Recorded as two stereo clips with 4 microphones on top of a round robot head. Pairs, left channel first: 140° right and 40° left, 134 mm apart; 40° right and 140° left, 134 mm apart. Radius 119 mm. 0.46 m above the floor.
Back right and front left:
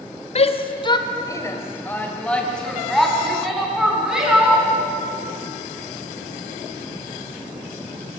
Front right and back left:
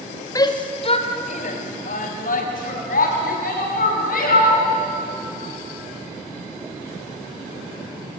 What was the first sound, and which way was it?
A shout, 105° right.